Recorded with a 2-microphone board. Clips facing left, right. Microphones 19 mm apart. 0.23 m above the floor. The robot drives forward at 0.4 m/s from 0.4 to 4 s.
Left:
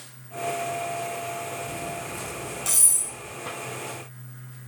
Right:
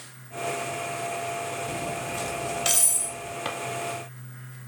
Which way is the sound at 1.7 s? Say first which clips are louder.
Right 2 dB; 55° right (ahead or behind).